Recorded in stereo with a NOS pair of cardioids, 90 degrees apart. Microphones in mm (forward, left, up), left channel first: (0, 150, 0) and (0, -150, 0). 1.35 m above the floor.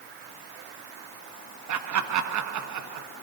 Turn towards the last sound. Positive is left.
turn(degrees=-70)